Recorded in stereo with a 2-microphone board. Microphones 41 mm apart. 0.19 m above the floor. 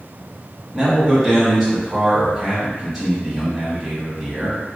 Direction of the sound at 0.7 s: Centre (ahead or behind).